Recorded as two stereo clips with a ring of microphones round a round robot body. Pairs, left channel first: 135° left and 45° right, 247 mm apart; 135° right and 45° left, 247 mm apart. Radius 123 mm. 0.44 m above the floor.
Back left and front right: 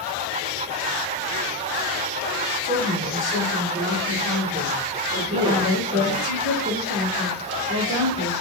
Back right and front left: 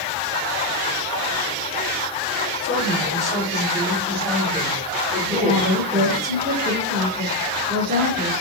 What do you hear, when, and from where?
2.6 s a woman speaking: 110° right, 1.6 m; by 6.3 s 5° left, 1.6 m
5.3 s a woman speaking: 15° left, 1.4 m